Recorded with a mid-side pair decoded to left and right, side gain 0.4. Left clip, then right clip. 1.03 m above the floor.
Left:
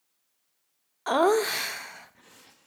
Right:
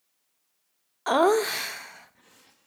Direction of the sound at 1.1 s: 15° right.